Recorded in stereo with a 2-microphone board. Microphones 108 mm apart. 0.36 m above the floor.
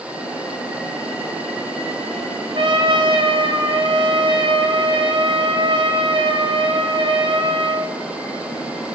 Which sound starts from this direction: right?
A trumpet, at 2.5 s.